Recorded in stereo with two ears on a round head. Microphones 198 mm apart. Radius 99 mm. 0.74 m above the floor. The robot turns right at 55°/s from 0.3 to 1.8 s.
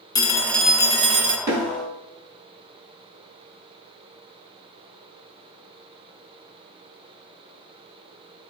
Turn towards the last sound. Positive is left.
turn(degrees=-35)  # may be behind; listen again after turning